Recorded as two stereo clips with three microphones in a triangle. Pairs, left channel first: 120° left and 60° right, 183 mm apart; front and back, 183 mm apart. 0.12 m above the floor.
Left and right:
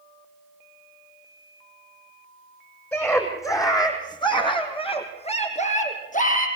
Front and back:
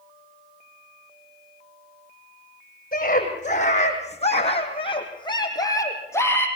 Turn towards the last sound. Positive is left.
turn(degrees=80)